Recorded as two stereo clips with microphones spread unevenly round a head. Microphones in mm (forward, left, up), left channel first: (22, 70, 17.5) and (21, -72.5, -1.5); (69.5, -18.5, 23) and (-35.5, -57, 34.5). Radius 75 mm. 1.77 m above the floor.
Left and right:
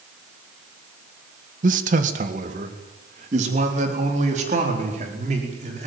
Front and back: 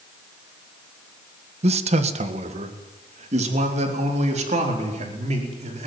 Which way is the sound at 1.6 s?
135° right.